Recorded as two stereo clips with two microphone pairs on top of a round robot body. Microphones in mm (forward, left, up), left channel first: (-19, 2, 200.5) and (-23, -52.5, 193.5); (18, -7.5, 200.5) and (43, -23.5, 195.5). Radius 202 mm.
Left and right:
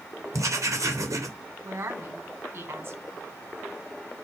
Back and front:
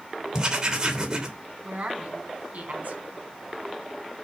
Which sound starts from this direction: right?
Writing, at 0.3 s.